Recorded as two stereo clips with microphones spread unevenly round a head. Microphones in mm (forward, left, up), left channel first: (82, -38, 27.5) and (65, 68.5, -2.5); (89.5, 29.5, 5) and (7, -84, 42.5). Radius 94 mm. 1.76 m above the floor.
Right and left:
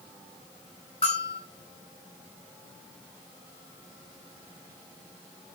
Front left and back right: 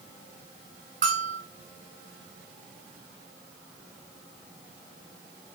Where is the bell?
125° right, 1.8 m.